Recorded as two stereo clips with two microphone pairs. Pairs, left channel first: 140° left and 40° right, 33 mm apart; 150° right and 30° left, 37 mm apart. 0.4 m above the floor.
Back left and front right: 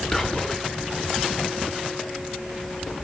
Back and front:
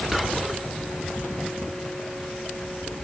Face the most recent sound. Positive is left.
turn(degrees=105)